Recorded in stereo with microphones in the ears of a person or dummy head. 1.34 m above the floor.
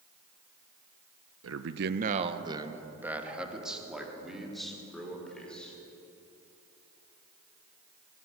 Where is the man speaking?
70° right (ahead or behind), 1.0 m; by 5.7 s 5° right (ahead or behind), 6 m.